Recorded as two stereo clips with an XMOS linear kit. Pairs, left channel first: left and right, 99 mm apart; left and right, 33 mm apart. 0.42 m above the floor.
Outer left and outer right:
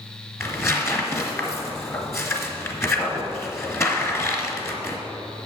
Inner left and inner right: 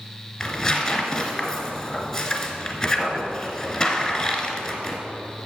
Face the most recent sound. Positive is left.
turn(degrees=25)  # may be behind; listen again after turning